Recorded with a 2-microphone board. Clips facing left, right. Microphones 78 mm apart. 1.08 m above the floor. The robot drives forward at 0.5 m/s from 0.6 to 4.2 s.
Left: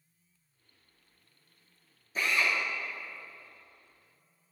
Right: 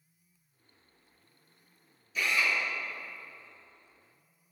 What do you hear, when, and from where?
2.1 s a drill: 35° left (ahead or behind), 2.5 m; by 2.5 s 40° left (ahead or behind), 2.5 m